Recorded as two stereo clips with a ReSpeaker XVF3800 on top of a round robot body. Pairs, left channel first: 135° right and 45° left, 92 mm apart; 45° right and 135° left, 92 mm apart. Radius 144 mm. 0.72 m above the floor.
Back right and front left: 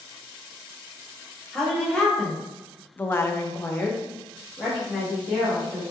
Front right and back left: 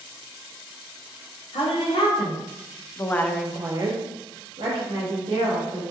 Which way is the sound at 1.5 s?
50° right.